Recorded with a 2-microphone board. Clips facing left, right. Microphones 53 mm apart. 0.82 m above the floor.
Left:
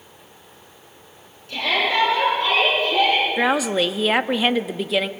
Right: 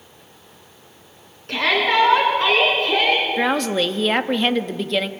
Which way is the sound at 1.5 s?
55° right (ahead or behind).